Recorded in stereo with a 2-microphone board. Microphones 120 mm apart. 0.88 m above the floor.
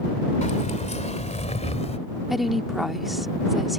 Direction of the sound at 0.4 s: 75° left (ahead or behind).